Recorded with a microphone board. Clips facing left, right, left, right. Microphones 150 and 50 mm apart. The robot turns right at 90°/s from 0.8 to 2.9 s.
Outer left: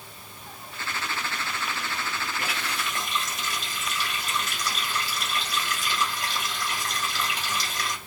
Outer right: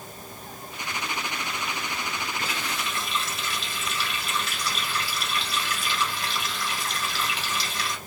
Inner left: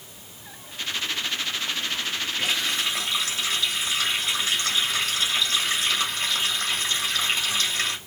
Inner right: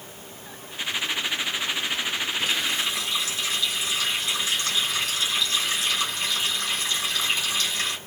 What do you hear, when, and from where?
2.4 s a running tap: 85° left, 2 m; by 8.0 s 135° left, 2 m